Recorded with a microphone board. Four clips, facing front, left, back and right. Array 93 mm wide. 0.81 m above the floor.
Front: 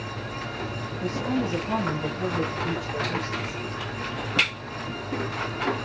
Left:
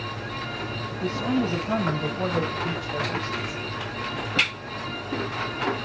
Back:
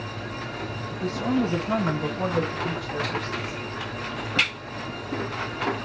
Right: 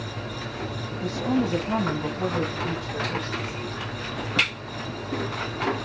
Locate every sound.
0.9 s a woman speaking: 140° left, 4.5 m; by 3.6 s 110° left, 4 m